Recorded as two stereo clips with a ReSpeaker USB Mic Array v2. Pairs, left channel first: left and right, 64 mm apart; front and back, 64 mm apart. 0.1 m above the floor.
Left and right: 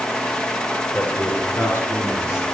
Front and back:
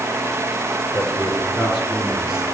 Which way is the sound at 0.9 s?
50° left.